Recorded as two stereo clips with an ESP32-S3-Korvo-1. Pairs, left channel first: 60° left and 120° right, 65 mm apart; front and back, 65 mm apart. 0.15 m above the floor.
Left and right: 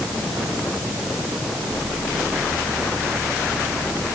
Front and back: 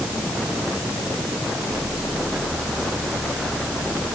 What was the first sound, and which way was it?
Only background noise.